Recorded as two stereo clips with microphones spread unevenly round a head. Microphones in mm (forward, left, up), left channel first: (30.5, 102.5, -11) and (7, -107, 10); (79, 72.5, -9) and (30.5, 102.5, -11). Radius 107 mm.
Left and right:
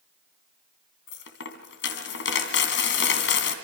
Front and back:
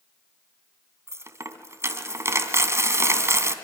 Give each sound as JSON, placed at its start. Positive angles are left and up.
{"t": 1.1, "sound": "a dropped coin", "azimuth_deg": 115, "distance_m": 2.5}